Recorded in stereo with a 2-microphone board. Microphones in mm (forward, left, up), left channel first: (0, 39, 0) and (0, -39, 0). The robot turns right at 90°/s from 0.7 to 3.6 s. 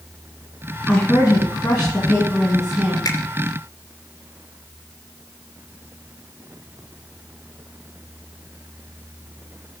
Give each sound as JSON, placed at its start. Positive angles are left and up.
{"t": 0.9, "sound": "a woman speaking", "azimuth_deg": 30, "distance_m": 2.5}
{"t": 3.0, "sound": "a finger snap", "side_deg": 50, "distance_m": 2.5}